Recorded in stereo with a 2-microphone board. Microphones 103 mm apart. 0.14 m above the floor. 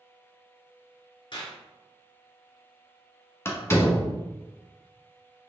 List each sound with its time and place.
1.3 s a clap: 50° left (ahead or behind), 1.5 m
3.5 s a door slam: 25° left (ahead or behind), 1.0 m